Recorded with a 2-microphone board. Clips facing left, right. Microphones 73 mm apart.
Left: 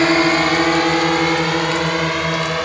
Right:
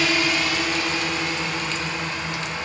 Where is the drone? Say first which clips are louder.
Left 8 dB; 45° left (ahead or behind); by 2.7 s 75° left (ahead or behind).